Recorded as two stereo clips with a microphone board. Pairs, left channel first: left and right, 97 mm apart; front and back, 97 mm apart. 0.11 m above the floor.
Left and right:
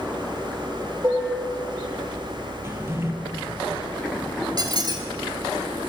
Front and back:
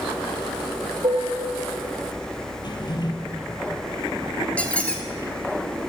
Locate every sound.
1.0 s dishes clattering: 155° right, 2.5 m
2.6 s a drawer: 30° right, 1.5 m
4.6 s a squeak: 70° right, 1.2 m